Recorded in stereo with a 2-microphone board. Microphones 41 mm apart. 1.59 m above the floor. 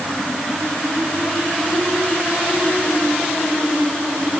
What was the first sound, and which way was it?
Only background noise.